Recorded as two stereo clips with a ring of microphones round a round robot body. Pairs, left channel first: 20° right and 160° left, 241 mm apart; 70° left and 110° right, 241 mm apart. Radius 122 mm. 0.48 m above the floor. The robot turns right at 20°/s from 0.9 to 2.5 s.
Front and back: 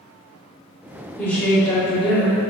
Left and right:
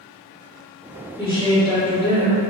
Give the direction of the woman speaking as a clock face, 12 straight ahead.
10 o'clock.